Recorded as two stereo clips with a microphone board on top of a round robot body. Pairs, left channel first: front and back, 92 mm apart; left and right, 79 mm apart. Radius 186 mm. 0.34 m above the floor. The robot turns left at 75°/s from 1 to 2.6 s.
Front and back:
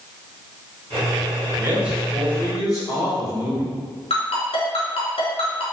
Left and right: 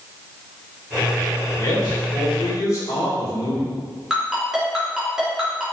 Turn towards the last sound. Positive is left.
turn(degrees=-5)